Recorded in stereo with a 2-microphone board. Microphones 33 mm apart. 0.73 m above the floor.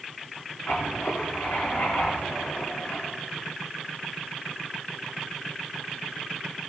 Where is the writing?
60° left (ahead or behind), 2 m.